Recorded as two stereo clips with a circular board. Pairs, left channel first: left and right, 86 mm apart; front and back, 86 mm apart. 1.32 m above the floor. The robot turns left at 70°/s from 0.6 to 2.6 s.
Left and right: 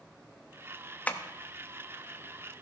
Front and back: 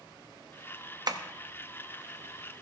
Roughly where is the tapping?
Behind.